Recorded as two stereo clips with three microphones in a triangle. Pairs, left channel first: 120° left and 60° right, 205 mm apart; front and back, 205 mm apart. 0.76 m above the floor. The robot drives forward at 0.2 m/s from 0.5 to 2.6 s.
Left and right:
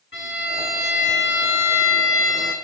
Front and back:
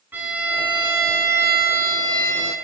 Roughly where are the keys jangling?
I don't hear keys jangling.